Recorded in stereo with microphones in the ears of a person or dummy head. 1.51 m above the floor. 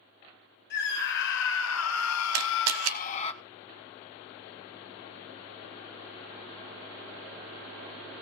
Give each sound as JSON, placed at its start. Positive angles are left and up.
{"t": 0.7, "sound": "a scream", "side_deg": 60, "distance_m": 2.0}
{"t": 2.3, "sound": "a camera shutter", "side_deg": -70, "distance_m": 1.1}